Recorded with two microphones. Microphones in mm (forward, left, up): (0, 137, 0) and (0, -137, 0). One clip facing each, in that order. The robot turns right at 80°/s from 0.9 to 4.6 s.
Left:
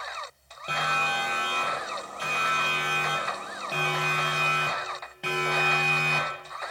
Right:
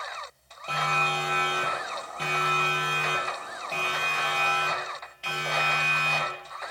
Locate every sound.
0.7 s a siren: 15° left (ahead or behind), 7 m; by 6.7 s 55° left (ahead or behind), 5.5 m